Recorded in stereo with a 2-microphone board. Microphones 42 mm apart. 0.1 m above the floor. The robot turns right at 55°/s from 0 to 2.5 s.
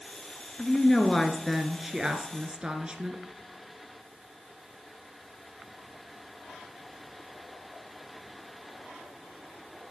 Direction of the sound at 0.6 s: 15° left (ahead or behind).